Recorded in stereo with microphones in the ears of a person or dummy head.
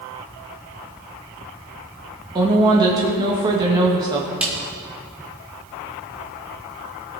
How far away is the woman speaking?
About 1.6 m.